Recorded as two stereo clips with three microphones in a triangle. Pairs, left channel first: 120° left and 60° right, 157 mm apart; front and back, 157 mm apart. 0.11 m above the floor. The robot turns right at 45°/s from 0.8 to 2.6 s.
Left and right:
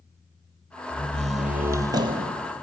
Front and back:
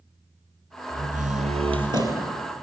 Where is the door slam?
170° right, 2 m; by 2.4 s 100° right, 2 m.